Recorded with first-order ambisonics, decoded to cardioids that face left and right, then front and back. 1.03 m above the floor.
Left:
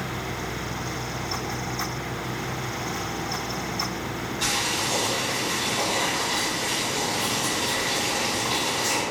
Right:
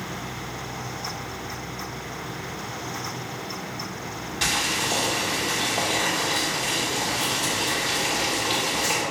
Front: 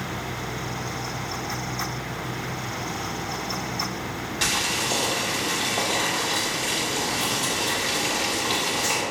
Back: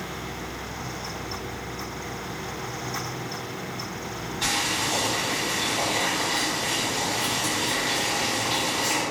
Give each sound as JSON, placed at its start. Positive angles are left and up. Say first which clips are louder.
{"t": 4.4, "sound": "boiling", "louder": "right 2 dB, front 1 dB", "azimuth_deg": -25, "distance_m": 1.3}